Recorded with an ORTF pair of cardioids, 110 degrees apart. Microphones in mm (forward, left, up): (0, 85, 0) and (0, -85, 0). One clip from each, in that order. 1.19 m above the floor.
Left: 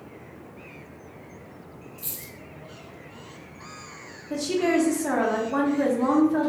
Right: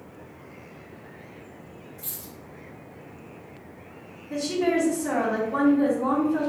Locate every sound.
2.0 s a dropped coin: 45° left, 1.5 m
4.3 s a woman speaking: 35° left, 1.0 m